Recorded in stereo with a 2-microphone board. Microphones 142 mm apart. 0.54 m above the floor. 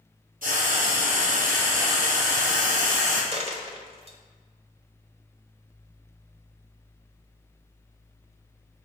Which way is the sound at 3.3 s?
45° right (ahead or behind).